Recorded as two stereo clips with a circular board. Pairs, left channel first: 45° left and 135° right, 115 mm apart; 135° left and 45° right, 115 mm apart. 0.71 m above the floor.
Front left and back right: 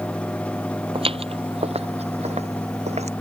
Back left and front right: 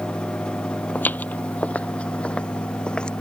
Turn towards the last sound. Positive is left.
turn(degrees=-145)